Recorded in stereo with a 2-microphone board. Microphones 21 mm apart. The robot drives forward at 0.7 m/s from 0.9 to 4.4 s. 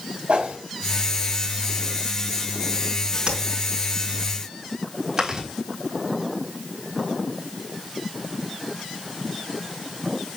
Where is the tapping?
45° right (ahead or behind), 4.5 m.